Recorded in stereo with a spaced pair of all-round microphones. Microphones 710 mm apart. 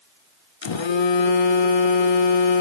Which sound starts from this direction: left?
A phone buzzing, at 0.6 s.